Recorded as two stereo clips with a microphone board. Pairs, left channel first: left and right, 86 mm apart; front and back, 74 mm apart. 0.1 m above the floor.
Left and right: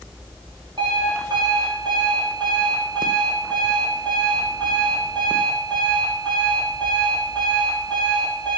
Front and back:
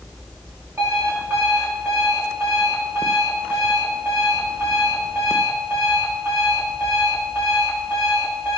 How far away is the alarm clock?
About 6.5 m.